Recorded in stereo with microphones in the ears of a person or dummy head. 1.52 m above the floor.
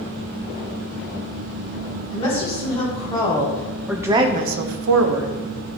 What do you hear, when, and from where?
2.1 s a woman speaking: 35° left (ahead or behind), 1.9 m; by 5.3 s 85° right, 1.0 m